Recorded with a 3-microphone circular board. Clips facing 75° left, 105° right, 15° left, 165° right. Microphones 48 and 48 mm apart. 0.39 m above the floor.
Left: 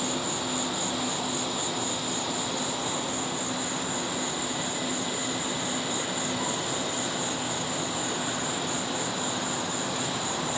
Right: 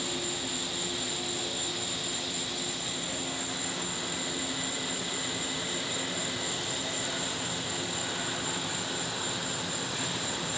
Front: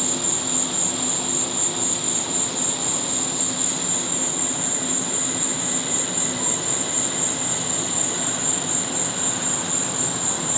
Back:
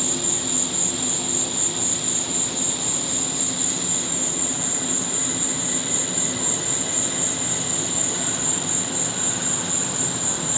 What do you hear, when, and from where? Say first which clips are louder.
0.0 s an insect: left 4 dB, even; 85° left